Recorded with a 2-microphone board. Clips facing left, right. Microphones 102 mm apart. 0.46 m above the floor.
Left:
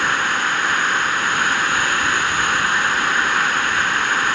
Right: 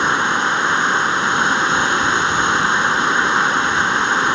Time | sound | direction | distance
0.0 | running water | 25° right (ahead or behind) | ?